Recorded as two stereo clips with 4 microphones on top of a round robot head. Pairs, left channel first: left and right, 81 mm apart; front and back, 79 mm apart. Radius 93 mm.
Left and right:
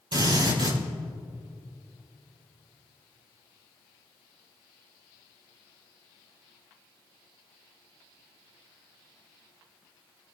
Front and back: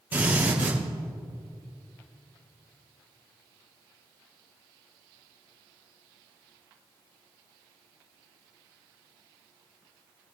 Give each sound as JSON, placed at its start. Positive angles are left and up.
{"t": 0.1, "sound": "a drill", "azimuth_deg": -110, "distance_m": 6.0}